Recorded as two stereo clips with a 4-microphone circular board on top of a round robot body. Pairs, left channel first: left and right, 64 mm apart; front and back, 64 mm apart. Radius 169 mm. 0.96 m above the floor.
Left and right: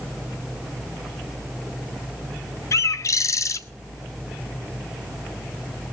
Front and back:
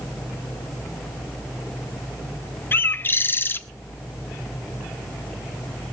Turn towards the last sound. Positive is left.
turn(degrees=55)